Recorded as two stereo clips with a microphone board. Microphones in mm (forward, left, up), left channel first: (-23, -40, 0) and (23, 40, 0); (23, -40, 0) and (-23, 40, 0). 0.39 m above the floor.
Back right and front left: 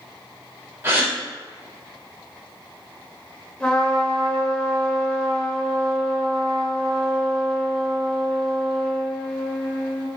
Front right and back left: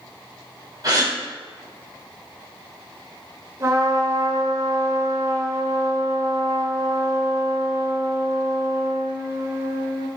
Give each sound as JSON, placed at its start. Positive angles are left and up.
{"t": 0.8, "sound": "a gasp", "azimuth_deg": 110, "distance_m": 1.0}
{"t": 3.6, "sound": "a trumpet", "azimuth_deg": 165, "distance_m": 0.7}